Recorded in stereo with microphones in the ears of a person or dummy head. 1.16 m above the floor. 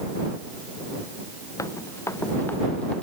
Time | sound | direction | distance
1.6 | running footsteps | 20° left (ahead or behind) | ?